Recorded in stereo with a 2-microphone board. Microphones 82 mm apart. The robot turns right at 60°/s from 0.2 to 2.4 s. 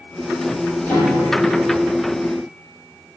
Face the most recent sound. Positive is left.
turn(degrees=-105)